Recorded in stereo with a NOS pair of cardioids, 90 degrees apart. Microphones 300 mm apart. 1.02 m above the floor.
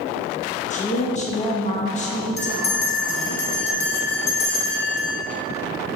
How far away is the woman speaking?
About 0.9 m.